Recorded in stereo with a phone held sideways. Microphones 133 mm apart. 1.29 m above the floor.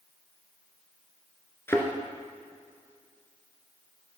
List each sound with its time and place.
1.7 s a thud: 20° left (ahead or behind), 1.7 m